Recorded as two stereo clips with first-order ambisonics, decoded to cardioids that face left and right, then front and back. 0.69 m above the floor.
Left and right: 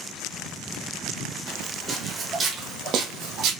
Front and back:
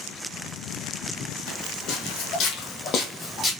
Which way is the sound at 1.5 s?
5° left.